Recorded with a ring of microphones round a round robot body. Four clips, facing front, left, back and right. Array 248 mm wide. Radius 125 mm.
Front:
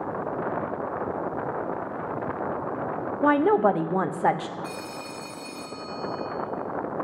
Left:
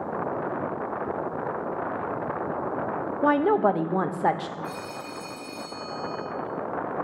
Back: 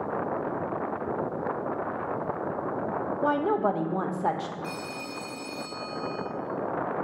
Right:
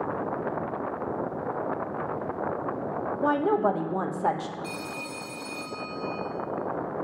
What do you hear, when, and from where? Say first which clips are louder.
3.2 s a woman speaking: left 3 dB, front 6 dB; 35° left, 0.7 m
4.6 s a phone ringing: left 1 dB, even; 115° right, 3.5 m